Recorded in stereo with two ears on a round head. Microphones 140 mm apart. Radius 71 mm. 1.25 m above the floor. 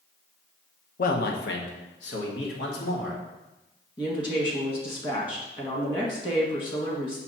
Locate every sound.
1.0 s a man speaking: 60° left (ahead or behind), 0.9 m; by 3.2 s 65° left (ahead or behind), 2 m
4.0 s a woman speaking: 30° left (ahead or behind), 1.6 m